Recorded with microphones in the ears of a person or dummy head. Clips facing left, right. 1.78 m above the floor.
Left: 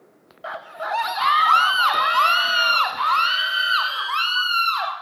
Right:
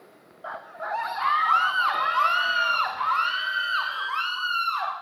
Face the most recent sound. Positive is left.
turn(degrees=80)